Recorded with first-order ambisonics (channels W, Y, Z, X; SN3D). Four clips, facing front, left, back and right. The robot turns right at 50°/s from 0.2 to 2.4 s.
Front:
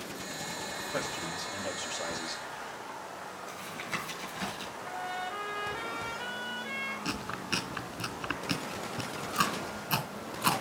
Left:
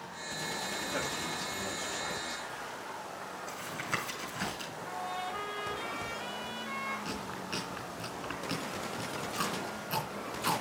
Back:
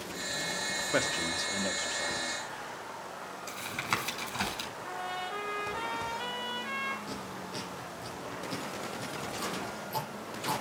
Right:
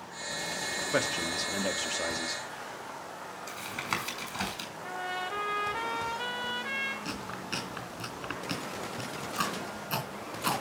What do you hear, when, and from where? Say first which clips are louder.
0.9 s a man speaking: right 9 dB, back 5 dB; 140° right, 1.4 m; by 2.4 s 65° right, 1.4 m
3.5 s tapping: right 3 dB, back 5 dB; 140° right, 4.5 m
4.8 s a trumpet: right 3 dB, front 2 dB; 100° right, 3 m
7.0 s chewing: right 1 dB, front 5 dB; 15° right, 2.5 m